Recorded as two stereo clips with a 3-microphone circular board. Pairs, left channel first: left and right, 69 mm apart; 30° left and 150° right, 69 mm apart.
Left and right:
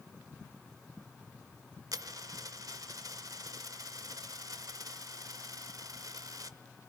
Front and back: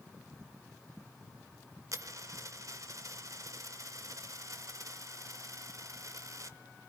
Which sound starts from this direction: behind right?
A dropped coin, at 1.9 s.